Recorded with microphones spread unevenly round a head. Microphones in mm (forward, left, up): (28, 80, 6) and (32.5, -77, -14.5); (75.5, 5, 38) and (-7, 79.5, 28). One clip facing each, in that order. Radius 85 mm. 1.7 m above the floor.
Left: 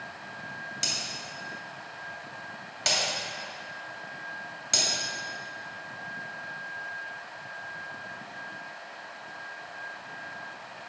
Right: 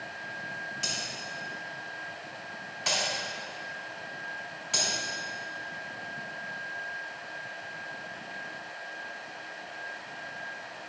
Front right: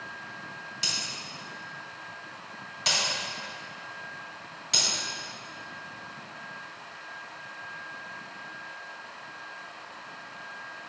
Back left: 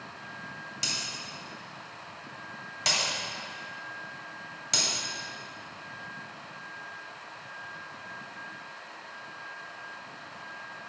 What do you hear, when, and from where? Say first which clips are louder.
0.8 s breaking glass: even, even; 100° left, 2.5 m